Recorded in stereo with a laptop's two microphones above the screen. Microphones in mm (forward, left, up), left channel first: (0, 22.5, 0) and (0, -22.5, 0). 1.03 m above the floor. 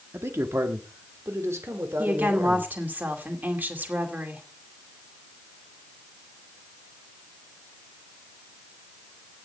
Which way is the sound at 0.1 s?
70° right (ahead or behind).